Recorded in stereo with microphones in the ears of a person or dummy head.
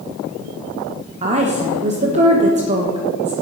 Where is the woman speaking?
40° right (ahead or behind), 1.4 m.